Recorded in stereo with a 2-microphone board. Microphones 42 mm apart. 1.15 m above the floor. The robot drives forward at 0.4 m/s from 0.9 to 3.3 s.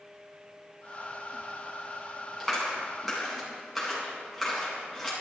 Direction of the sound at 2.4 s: 5° right (ahead or behind).